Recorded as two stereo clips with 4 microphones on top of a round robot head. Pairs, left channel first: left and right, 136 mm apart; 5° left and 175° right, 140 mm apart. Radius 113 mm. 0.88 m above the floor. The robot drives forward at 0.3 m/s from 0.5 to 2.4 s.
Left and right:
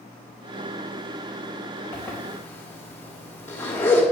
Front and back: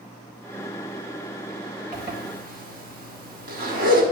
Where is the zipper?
165° left, 2.5 m.